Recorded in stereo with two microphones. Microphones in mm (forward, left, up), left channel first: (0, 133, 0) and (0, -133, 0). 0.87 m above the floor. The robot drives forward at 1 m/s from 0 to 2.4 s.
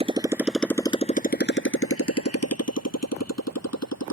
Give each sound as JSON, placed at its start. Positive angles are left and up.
{"t": 0.0, "sound": "a motorcycle", "side_deg": -20}